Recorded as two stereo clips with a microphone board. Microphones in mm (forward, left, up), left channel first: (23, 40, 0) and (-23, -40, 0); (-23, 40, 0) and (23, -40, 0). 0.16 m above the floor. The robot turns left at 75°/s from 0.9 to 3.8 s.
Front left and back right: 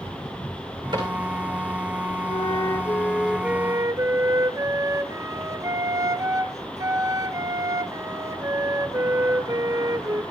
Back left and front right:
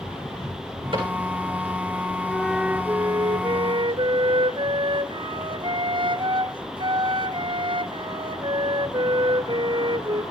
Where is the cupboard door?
80° right, 8.5 m; by 1.1 s 95° right, 8.5 m.